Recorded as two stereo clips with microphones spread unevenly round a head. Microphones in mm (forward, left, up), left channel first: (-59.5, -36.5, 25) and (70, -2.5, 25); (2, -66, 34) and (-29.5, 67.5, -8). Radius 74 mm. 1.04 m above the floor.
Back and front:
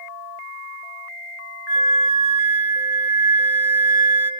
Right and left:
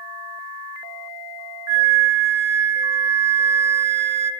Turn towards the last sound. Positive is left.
turn(degrees=20)